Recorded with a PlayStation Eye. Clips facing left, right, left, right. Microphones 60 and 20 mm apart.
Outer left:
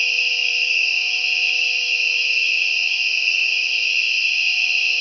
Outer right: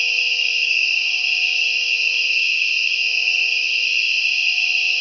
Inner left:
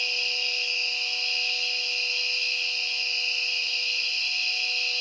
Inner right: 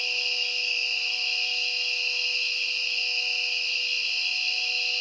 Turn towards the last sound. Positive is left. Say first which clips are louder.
# even, even
turn(degrees=50)  # may be behind; listen again after turning